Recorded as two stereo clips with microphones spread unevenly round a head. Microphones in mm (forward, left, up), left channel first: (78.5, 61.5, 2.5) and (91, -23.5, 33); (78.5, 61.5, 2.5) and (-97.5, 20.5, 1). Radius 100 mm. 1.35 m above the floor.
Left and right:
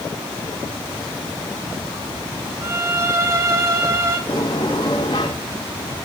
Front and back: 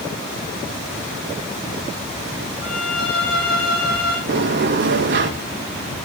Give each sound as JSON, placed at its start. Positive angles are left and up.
{"t": 2.6, "sound": "a violin", "azimuth_deg": -30, "distance_m": 3.0}
{"t": 4.3, "sound": "a sliding door", "azimuth_deg": 170, "distance_m": 1.7}